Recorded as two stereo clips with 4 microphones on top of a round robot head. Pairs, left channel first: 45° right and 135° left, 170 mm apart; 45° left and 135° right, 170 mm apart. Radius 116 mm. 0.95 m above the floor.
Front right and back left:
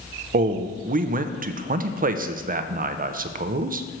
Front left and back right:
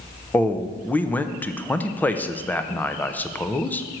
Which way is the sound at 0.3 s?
120° left.